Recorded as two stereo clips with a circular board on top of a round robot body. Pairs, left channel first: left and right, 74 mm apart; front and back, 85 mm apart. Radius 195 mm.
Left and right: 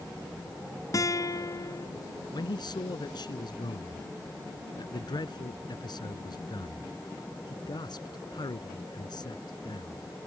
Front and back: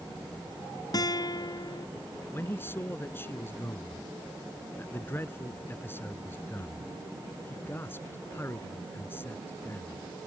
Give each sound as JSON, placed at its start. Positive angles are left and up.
{"t": 0.9, "sound": "a guitar", "azimuth_deg": 45}
{"t": 2.3, "sound": "a man speaking", "azimuth_deg": 65}